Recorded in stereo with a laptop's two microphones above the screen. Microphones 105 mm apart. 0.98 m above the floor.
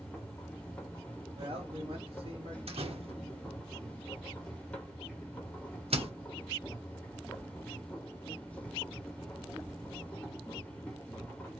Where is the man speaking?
60° right (ahead or behind), 1.6 m.